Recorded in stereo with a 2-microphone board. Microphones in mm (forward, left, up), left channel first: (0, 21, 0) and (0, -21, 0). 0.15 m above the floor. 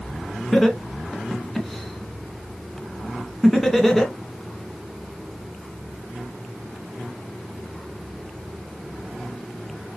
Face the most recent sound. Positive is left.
turn(degrees=5)  # may be behind; listen again after turning